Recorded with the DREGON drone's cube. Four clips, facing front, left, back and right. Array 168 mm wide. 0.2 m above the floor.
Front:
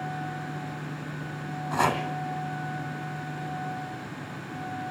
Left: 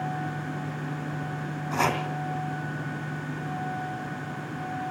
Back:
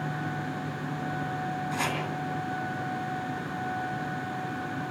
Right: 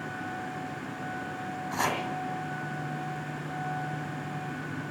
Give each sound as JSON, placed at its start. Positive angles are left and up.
{"t": 1.7, "sound": "chopping", "azimuth_deg": 25, "distance_m": 2.0}